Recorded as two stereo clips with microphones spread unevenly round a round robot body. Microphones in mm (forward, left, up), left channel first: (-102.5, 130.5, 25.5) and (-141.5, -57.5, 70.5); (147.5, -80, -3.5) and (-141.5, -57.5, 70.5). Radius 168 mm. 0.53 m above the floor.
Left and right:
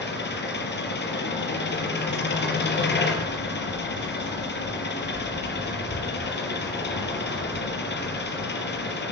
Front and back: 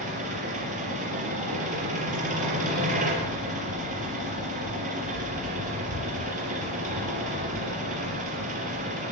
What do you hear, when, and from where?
0.0 s an engine running: 105° left, 4.5 m